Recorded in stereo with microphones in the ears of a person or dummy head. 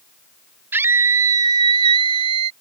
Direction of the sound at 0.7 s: 10° right (ahead or behind).